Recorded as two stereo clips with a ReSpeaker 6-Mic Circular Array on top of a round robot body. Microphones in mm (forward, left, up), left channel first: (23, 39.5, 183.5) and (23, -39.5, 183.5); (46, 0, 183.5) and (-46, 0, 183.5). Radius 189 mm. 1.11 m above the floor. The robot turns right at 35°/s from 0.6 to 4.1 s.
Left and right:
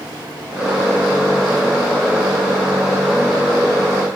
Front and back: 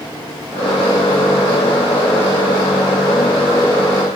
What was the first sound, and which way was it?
Only background noise.